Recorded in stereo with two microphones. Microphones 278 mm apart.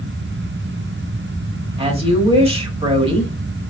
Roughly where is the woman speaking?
Centre.